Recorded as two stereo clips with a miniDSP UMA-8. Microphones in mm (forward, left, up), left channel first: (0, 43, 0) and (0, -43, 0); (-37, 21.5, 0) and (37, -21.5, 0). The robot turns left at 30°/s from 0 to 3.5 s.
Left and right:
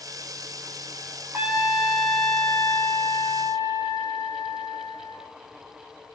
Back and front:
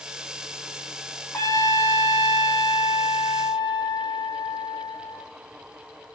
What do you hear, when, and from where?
1.3 s a trumpet: 160° right, 0.9 m; by 5.2 s 135° left, 0.9 m